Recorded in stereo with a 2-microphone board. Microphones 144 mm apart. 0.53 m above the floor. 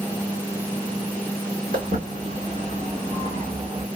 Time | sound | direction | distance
1.7 | footsteps | 75° right (ahead or behind) | 1.9 m